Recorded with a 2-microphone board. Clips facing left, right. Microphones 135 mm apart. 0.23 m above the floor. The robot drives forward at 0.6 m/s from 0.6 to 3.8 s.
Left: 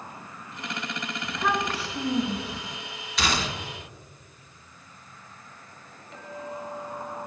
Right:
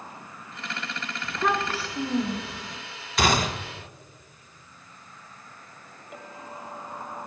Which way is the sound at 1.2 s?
Centre (ahead or behind).